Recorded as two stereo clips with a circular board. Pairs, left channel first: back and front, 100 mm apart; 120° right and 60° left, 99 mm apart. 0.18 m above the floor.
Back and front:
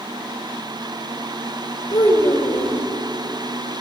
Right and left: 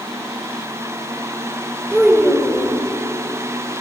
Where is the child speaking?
135° left, 8.5 m.